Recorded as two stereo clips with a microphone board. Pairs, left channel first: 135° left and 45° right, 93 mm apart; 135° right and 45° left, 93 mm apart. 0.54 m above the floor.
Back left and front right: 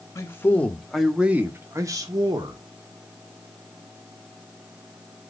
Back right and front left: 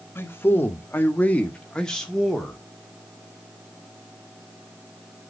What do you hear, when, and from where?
0.1 s a man speaking: 175° left, 0.9 m; by 2.6 s 45° right, 1.2 m